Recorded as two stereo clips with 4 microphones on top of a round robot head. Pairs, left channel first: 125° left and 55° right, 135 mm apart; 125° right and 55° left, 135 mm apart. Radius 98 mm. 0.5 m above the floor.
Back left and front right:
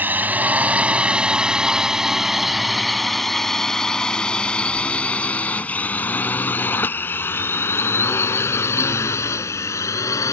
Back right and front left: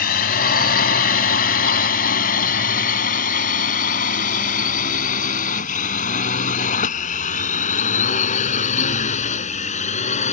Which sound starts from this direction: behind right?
A drone, at 0.0 s.